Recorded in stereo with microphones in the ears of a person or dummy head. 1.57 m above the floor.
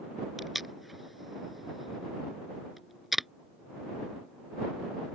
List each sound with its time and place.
0.4 s tape being pulled: centre (ahead or behind)